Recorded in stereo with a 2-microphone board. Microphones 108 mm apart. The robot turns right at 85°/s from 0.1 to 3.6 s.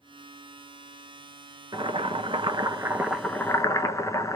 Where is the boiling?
125° right, 0.5 m; by 4.4 s 35° left, 0.5 m.